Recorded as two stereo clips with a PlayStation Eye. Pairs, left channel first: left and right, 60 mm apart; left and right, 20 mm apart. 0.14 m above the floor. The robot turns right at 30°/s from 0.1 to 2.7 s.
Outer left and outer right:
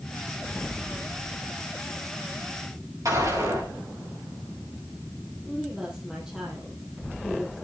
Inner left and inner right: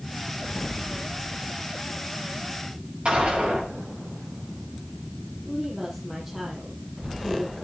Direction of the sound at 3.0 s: 60° right (ahead or behind).